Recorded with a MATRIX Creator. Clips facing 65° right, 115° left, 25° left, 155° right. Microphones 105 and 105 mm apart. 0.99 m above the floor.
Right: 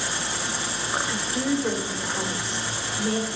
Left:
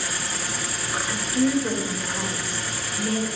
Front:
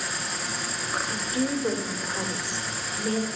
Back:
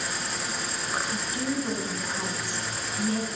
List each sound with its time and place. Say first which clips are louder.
0.0 s an insect: right 1 dB, even; 65° right, 0.7 m
1.1 s a woman speaking: left 5 dB, front 3 dB; 5° right, 2 m